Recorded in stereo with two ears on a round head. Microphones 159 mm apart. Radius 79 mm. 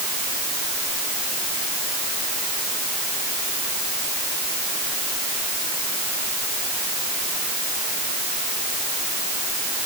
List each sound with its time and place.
Only background noise.